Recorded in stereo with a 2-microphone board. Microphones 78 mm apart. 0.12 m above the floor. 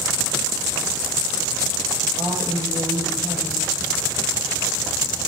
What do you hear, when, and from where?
2.2 s a woman speaking: 70° right (ahead or behind), 7 m